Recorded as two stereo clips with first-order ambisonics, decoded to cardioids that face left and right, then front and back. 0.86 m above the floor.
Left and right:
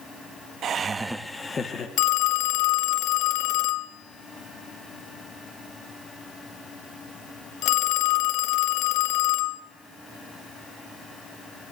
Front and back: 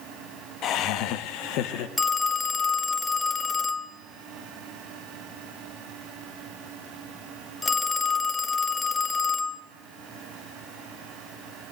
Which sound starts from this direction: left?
A phone ringing, at 2.0 s.